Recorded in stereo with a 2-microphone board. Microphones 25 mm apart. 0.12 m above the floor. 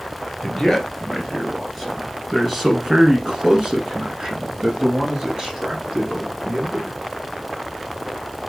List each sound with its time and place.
0.4 s a man speaking: 10° left (ahead or behind), 1.8 m; by 7.0 s 40° right (ahead or behind), 2.5 m